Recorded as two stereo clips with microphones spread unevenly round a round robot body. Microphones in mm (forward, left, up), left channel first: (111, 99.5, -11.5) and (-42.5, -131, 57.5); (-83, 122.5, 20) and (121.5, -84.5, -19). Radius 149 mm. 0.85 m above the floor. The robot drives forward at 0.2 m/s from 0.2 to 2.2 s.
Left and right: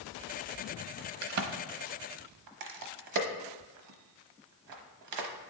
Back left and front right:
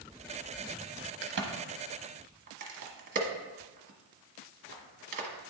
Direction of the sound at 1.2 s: 90° right.